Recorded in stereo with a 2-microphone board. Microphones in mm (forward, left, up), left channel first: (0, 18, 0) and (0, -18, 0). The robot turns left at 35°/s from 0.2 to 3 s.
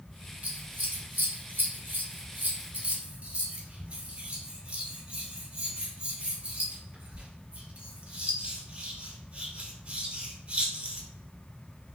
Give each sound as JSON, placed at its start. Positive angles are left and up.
{"t": 0.4, "sound": "scissors", "side_deg": -50, "distance_m": 1.2}